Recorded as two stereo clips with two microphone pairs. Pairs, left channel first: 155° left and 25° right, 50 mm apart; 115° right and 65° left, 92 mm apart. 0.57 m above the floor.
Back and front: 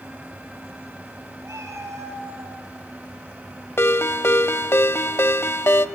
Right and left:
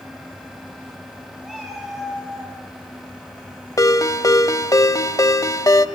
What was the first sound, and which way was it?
A cat meowing, 25° right.